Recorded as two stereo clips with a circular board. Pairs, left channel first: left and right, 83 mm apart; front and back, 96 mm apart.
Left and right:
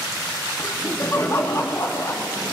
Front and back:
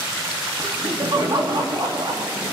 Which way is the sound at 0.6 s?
145° left.